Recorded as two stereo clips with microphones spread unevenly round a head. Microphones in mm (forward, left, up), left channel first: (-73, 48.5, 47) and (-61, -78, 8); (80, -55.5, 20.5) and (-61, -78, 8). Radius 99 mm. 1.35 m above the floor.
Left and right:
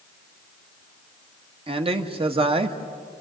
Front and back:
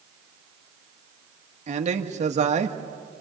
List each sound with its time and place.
1.7 s a man speaking: 130° right, 1.7 m